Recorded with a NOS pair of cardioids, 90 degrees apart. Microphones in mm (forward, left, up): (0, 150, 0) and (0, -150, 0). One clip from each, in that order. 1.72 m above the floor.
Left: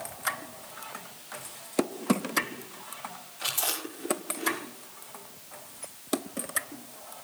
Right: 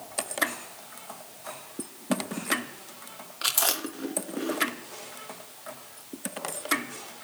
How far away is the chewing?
About 3 m.